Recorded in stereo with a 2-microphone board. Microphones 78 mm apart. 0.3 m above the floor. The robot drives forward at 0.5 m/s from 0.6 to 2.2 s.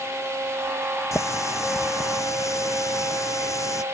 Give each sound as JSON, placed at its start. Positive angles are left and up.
{"t": 1.1, "sound": "a running tap", "side_deg": 35}